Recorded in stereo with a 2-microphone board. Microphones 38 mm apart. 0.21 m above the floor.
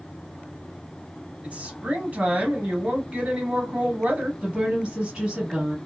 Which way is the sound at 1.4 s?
40° right (ahead or behind).